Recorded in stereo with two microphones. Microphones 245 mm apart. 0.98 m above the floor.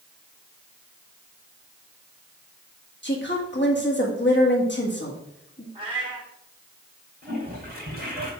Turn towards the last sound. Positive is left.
turn(degrees=-40)  # may be behind; listen again after turning